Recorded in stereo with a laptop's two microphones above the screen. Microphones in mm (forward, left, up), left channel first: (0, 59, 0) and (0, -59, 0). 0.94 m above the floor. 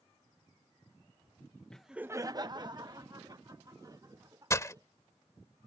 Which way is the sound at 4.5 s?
25° left (ahead or behind).